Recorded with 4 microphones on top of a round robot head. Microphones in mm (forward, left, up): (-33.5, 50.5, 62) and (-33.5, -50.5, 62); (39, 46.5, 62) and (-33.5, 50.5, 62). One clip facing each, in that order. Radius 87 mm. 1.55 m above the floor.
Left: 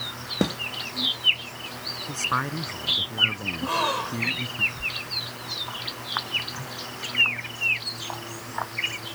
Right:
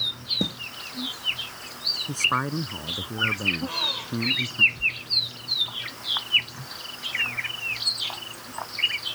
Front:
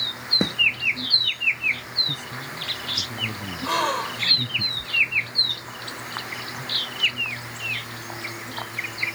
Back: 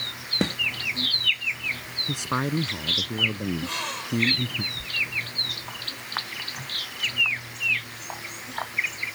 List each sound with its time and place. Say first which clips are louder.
0.4 s a snare drum: left 5 dB, even; 65° left
2.1 s a man speaking: right 1 dB, back 8 dB; 165° right
3.6 s a gasp: left 8 dB, front 8 dB; 35° left